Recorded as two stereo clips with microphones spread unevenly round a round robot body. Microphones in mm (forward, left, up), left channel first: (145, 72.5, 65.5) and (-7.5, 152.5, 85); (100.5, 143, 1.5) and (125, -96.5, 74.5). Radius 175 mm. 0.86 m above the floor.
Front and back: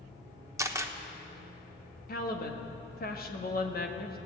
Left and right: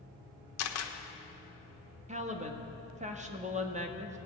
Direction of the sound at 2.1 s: 15° right.